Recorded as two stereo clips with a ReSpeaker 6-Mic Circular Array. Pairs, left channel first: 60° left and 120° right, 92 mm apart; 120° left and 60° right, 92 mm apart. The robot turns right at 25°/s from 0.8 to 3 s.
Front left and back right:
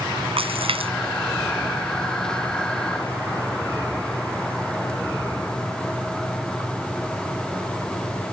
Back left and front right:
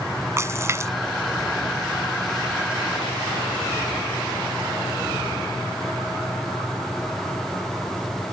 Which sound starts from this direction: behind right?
A splash, at 0.4 s.